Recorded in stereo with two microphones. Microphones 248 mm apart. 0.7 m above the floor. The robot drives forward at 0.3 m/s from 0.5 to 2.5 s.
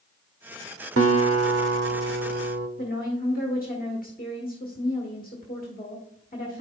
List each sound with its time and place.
1.0 s a guitar: 65° right (ahead or behind), 0.8 m; by 2.7 s 75° right (ahead or behind), 0.8 m
2.8 s a woman speaking: 35° left (ahead or behind), 1.5 m